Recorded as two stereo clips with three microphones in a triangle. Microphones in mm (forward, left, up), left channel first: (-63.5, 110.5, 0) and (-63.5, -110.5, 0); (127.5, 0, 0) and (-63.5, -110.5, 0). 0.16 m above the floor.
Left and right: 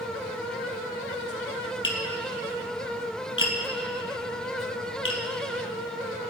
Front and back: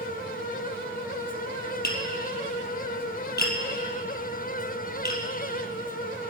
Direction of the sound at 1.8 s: 70° left.